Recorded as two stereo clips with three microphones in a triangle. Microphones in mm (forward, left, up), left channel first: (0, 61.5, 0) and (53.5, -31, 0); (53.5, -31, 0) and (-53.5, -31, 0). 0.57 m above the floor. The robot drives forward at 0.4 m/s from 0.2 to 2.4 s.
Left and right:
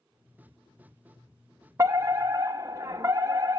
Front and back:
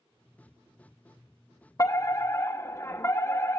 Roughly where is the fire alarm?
Ahead right.